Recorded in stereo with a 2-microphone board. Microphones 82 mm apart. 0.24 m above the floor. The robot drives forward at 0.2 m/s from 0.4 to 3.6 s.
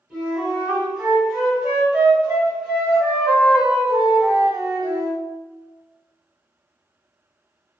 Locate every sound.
0.1 s a flute: 5° right (ahead or behind), 1.7 m